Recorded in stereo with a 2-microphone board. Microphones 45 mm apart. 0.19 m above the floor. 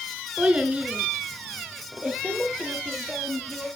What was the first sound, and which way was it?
A child speaking, 25° right (ahead or behind).